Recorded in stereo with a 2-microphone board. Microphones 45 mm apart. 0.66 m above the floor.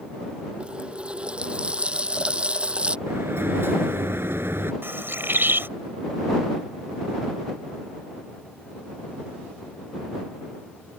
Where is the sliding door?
60° right (ahead or behind).